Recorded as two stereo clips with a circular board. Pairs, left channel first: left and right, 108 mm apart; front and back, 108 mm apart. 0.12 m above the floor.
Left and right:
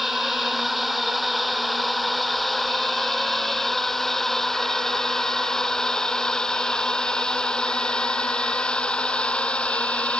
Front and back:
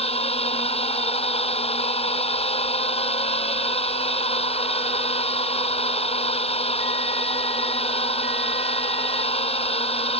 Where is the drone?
Straight ahead; by 10.2 s 10° left.